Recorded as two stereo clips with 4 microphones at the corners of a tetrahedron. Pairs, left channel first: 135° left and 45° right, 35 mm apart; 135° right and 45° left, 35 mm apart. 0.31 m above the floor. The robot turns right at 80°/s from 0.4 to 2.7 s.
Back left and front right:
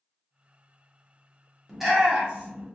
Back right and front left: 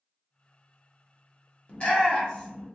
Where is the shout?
140° right, 1.0 m; by 2.7 s 60° right, 1.0 m.